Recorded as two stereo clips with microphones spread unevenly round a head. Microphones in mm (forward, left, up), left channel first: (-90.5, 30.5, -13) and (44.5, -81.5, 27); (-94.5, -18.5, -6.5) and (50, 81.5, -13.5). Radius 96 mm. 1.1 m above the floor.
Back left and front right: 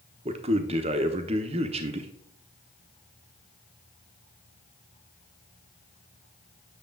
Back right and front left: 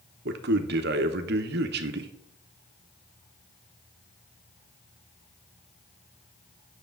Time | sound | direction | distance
0.2 | a man speaking | 25° left | 0.9 m